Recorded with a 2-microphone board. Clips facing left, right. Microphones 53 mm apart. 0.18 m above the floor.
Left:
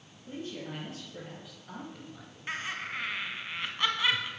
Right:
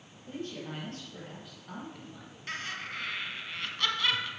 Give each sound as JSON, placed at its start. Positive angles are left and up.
{"t": 0.3, "sound": "a man speaking", "side_deg": 15, "distance_m": 4.5}
{"t": 2.5, "sound": "laughter", "side_deg": 20, "distance_m": 1.3}